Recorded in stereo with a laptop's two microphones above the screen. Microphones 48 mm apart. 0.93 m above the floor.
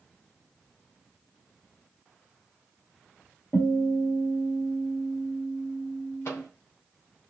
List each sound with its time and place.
3.5 s a guitar: 50° left (ahead or behind), 1.6 m
6.2 s a microwave: 70° left (ahead or behind), 1.0 m